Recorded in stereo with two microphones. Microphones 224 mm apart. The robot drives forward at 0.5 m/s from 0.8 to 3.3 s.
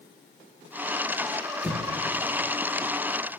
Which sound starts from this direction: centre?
An explosion, at 1.6 s.